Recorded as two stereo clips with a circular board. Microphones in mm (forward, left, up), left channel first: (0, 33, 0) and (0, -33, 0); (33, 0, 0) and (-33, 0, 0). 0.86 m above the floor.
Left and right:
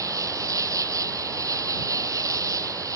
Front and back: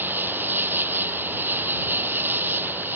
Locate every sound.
0.0 s an insect: 120° right